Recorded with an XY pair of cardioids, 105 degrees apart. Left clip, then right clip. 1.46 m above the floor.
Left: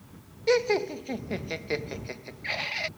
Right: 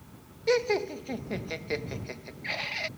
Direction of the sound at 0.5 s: 15° left.